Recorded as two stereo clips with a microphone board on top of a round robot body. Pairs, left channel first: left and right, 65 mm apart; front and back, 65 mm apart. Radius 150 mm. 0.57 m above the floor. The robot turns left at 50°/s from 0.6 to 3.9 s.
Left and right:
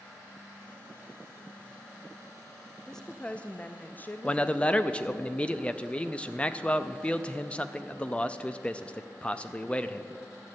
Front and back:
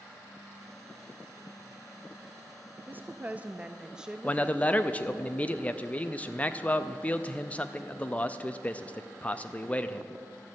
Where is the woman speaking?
165° left, 0.6 m; by 5.2 s 115° left, 0.6 m.